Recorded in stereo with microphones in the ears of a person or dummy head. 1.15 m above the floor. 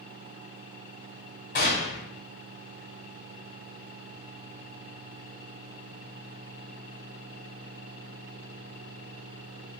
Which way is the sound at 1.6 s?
50° left (ahead or behind).